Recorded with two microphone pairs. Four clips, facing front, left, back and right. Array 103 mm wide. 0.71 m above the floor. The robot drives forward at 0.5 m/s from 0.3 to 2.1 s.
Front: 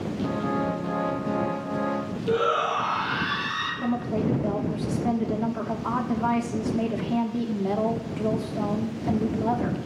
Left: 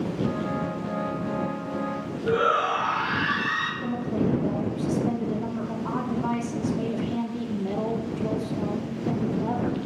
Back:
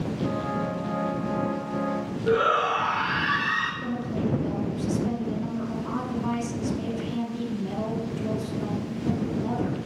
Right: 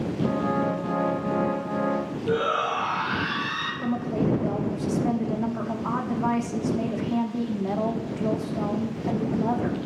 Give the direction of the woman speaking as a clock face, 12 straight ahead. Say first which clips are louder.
Right 2 dB, front 3 dB; 1 o'clock.